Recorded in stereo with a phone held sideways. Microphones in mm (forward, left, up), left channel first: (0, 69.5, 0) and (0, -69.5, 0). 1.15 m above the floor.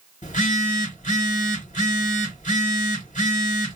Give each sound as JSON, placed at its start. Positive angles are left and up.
{"t": 0.2, "sound": "a phone buzzing", "side_deg": 60, "distance_m": 1.7}